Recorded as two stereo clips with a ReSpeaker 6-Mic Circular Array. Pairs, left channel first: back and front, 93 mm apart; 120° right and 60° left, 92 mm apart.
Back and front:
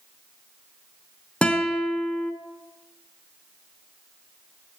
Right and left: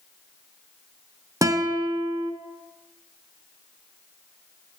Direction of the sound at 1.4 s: 105° left.